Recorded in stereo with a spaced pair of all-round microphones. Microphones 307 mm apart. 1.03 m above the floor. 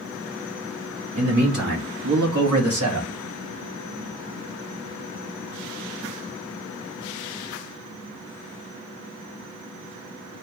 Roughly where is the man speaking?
Right.